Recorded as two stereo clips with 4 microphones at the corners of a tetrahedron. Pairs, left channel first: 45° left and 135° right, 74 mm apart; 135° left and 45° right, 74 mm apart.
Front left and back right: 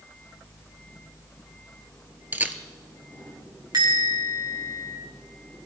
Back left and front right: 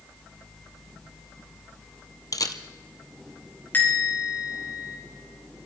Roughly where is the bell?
Behind.